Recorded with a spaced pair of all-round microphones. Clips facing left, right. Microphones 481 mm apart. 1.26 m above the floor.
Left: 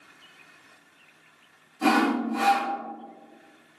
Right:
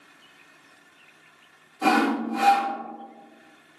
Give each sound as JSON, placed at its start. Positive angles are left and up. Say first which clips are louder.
{"t": 1.8, "sound": "sawing", "louder": "even", "side_deg": 45, "distance_m": 1.8}